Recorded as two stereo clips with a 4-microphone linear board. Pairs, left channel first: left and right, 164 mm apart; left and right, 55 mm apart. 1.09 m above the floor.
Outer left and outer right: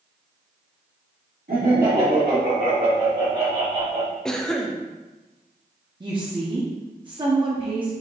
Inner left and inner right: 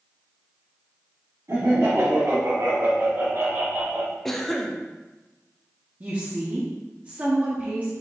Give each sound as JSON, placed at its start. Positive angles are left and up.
{"t": 1.5, "sound": "laughter", "side_deg": -65, "distance_m": 1.9}
{"t": 4.2, "sound": "a cough", "side_deg": 5, "distance_m": 0.6}
{"t": 6.0, "sound": "a woman speaking", "side_deg": -30, "distance_m": 0.7}